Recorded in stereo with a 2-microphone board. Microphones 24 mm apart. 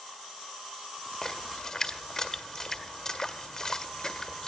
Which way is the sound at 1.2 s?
25° left (ahead or behind).